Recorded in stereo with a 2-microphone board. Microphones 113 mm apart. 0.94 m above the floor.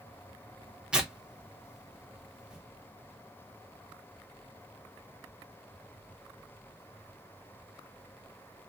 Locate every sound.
0.9 s tearing paper: 5° right (ahead or behind), 0.8 m